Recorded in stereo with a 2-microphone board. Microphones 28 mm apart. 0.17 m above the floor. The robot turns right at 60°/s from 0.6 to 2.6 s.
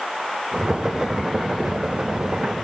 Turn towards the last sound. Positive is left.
No sound to turn to.